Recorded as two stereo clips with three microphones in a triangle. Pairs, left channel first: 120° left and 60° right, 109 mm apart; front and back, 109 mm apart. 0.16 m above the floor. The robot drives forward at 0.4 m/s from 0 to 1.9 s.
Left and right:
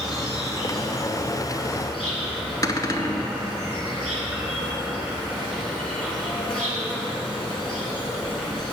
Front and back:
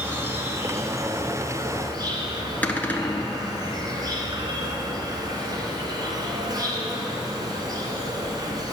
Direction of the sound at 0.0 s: 130° right.